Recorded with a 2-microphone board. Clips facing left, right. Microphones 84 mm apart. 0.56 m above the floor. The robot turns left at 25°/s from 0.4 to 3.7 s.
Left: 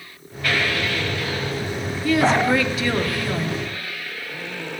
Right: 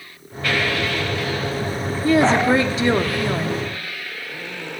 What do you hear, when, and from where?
2.0 s a woman speaking: 105° right, 0.7 m; by 3.6 s 145° right, 0.7 m